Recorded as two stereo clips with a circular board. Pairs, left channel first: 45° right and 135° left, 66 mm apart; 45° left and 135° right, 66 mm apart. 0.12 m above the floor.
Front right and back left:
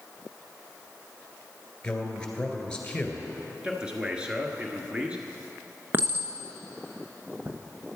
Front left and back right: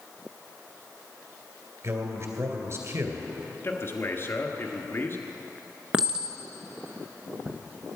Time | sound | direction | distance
1.8 | a man speaking | 120° right | 2 m
3.6 | a man speaking | 70° left | 1.4 m
5.9 | a clink | 160° left | 1.0 m